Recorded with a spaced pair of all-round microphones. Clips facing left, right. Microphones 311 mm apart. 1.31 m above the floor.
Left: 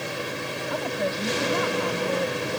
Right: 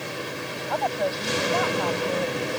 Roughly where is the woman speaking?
Left.